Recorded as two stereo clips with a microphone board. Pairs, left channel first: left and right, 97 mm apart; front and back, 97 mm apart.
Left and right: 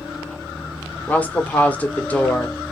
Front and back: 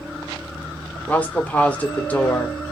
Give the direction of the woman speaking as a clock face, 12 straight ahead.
10 o'clock.